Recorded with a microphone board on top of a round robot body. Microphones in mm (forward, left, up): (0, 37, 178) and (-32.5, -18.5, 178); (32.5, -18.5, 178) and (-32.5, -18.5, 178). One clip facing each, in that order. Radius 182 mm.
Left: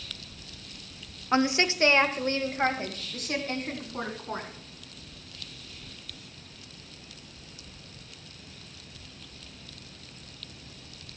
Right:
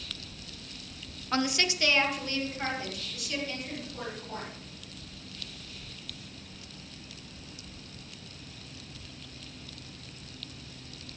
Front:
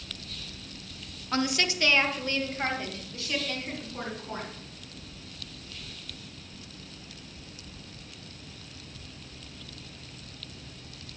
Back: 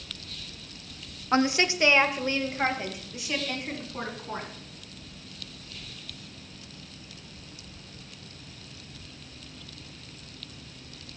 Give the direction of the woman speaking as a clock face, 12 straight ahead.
8 o'clock.